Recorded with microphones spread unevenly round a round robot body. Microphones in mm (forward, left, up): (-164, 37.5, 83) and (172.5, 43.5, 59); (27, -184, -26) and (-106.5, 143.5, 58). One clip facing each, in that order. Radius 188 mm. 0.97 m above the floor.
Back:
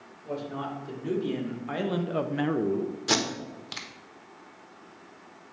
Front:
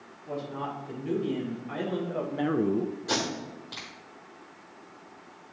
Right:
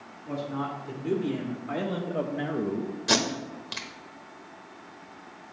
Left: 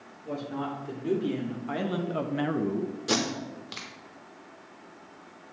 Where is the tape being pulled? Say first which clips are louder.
Back 2 dB, right 2 dB; 140° right, 1.2 m.